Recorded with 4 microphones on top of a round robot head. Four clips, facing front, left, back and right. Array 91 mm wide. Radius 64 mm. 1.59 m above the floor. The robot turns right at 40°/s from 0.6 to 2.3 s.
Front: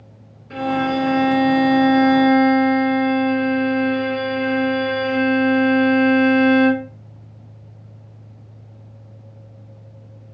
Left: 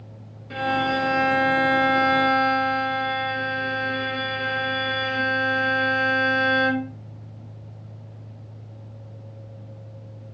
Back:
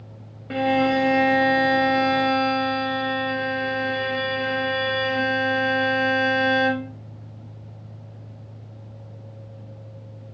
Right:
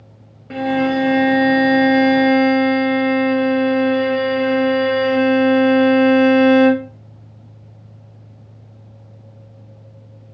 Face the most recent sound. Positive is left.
turn(degrees=-80)